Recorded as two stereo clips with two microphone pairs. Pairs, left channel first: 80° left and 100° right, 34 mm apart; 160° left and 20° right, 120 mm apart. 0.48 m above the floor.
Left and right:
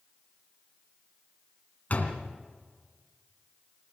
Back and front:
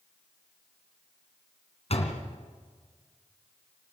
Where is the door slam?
130° left, 3 m.